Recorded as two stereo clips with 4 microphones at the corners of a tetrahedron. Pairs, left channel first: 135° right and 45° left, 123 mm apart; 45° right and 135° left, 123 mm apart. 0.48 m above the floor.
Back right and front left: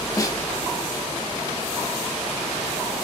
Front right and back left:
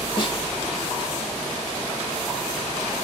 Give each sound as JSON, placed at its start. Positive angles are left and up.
{"t": 0.2, "sound": "a snare drum", "azimuth_deg": -80, "distance_m": 0.9}